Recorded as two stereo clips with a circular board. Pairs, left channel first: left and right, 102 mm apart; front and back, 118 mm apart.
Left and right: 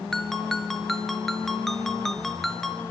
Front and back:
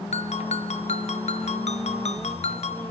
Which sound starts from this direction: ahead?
A ringtone, at 0.1 s.